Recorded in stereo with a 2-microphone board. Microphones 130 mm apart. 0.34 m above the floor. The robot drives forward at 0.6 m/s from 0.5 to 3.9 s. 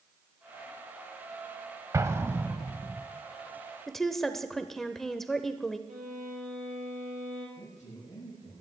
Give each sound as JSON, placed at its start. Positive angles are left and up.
{"t": 1.9, "sound": "an explosion", "side_deg": -25, "distance_m": 0.7}
{"t": 3.9, "sound": "a woman speaking", "side_deg": 5, "distance_m": 0.8}
{"t": 5.9, "sound": "a violin", "side_deg": -80, "distance_m": 4.5}
{"t": 7.6, "sound": "a man speaking", "side_deg": 60, "distance_m": 7.0}